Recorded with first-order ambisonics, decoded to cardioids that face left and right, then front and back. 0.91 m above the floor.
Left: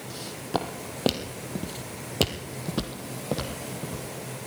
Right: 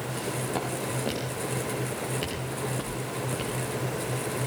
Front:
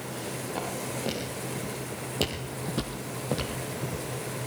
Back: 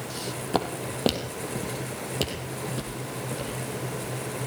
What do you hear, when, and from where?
0.1 s footsteps: 155° left, 2.5 m; by 4.1 s 50° left, 3 m